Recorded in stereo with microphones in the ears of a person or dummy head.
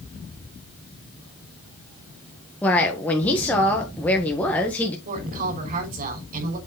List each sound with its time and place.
2.6 s a woman speaking: 10° left (ahead or behind), 1.5 m
5.0 s a woman speaking: 50° right (ahead or behind), 5 m